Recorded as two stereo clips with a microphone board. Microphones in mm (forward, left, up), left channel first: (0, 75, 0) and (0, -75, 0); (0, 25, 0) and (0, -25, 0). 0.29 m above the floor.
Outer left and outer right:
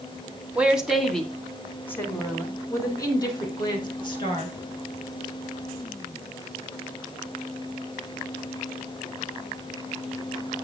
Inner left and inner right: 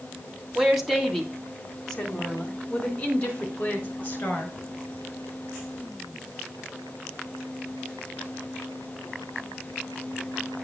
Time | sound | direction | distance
0.6 | a woman speaking | 5° right (ahead or behind) | 2.0 m